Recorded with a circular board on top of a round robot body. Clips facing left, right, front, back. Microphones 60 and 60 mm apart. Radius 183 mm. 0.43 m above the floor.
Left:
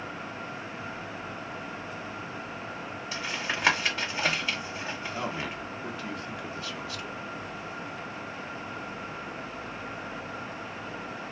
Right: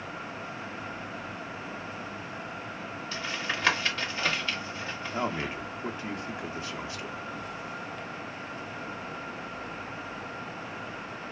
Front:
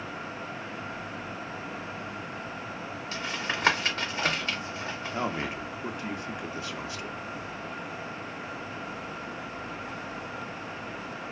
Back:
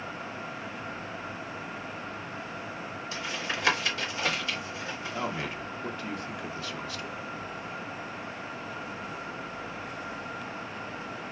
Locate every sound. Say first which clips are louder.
3.1 s tapping: left 1 dB, front 2 dB; 20° left, 1.7 m
5.1 s a man speaking: right 5 dB, front 2 dB; 45° right, 0.9 m